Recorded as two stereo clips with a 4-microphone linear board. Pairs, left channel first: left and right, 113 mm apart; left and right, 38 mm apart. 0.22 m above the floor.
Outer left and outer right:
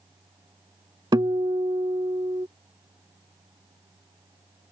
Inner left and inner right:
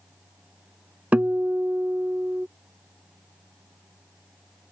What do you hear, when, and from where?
1.1 s a guitar: 45° right (ahead or behind)